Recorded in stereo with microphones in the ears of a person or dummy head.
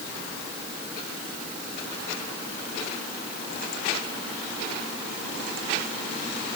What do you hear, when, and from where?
Only background noise.